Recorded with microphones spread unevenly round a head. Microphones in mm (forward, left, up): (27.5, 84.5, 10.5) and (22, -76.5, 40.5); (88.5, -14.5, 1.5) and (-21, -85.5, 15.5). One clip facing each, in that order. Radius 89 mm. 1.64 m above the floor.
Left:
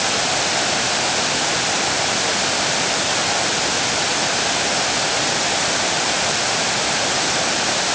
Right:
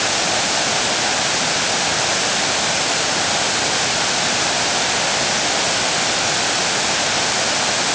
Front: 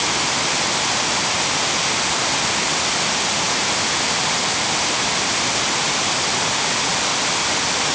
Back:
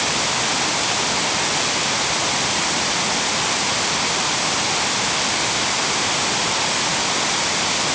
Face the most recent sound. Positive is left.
No sound to turn to.